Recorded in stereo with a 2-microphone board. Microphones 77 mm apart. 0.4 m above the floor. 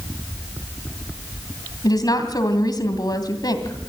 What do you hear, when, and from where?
1.8 s a woman speaking: 60° left (ahead or behind), 2.5 m